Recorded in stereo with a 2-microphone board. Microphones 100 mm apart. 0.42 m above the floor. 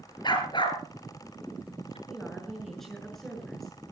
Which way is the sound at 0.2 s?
45° left (ahead or behind).